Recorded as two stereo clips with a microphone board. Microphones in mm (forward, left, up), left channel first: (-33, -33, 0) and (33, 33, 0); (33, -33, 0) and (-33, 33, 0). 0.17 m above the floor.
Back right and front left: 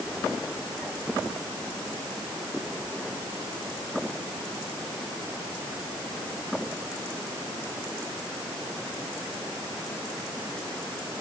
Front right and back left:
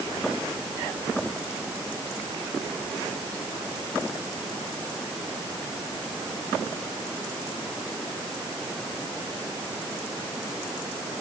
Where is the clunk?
No clunk in this recording.